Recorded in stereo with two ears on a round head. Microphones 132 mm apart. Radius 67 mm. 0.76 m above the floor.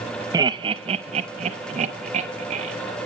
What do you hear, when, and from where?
0.3 s laughter: 25° right (ahead or behind), 0.6 m; by 2.7 s 45° right (ahead or behind), 1.3 m